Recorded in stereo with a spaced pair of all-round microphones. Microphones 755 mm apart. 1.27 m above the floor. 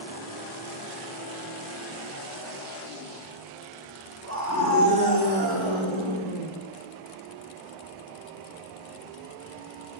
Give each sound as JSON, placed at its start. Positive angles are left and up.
{"t": 4.2, "sound": "a scream", "side_deg": -20, "distance_m": 3.5}